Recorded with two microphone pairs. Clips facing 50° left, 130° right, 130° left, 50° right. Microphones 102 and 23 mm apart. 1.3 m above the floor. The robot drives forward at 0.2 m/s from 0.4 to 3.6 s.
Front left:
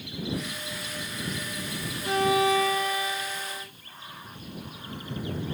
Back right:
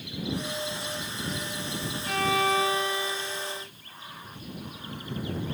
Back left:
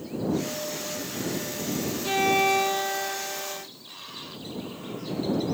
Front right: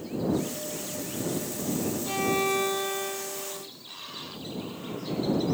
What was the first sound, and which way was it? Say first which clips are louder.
A violin: front left 3 dB, back left 6 dB; 120° left.